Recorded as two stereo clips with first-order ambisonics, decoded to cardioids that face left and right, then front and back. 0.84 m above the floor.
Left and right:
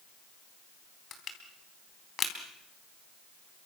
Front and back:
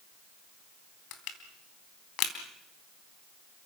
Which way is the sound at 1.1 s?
30° left.